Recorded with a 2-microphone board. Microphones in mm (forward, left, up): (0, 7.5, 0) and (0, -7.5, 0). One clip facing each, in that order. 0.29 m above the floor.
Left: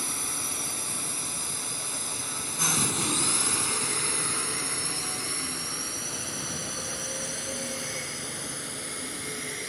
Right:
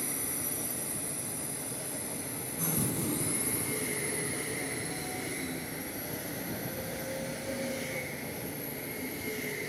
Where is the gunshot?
60° left (ahead or behind).